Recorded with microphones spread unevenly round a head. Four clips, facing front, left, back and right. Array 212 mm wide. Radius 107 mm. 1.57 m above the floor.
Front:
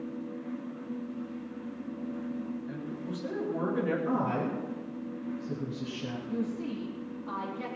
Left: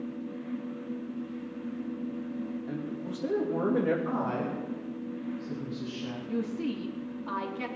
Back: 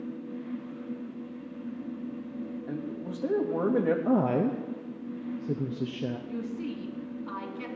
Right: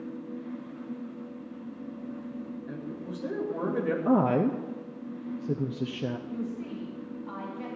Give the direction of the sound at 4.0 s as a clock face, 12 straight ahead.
5 o'clock.